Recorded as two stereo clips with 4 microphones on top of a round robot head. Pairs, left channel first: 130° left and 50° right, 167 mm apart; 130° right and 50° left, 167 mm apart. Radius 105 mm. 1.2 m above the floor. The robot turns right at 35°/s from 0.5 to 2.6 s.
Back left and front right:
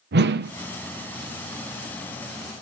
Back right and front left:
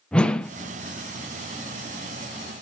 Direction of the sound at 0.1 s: 45° right.